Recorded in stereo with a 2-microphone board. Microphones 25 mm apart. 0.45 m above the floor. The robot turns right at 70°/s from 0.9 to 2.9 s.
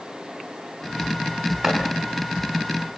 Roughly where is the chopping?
Centre.